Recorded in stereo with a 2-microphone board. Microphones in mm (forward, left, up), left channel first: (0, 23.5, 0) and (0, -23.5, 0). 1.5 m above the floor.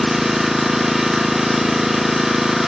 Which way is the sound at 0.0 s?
5° right (ahead or behind).